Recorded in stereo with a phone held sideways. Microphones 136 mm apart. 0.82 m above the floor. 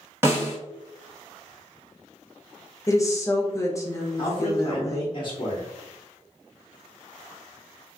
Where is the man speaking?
35° left (ahead or behind), 0.8 m.